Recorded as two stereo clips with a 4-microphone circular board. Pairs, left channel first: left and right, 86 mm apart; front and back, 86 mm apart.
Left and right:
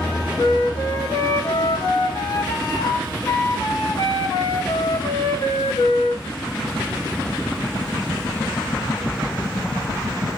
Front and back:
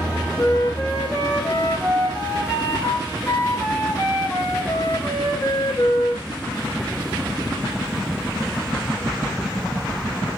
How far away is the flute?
About 3 m.